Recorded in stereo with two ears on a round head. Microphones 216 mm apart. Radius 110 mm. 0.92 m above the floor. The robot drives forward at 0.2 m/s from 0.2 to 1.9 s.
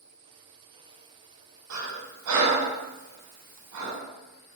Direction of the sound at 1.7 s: 75° right (ahead or behind).